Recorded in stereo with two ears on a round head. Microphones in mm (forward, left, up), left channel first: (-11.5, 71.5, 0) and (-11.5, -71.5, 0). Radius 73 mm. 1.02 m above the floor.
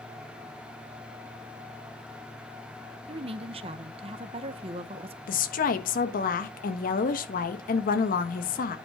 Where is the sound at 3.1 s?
35° right (ahead or behind), 0.7 m.